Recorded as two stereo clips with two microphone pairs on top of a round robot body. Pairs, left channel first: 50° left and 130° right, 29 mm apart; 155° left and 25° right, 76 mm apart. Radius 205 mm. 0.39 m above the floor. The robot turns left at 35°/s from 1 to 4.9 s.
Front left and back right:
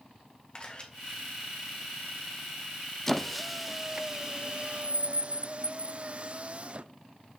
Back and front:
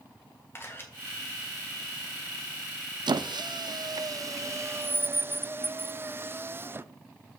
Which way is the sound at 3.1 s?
20° right.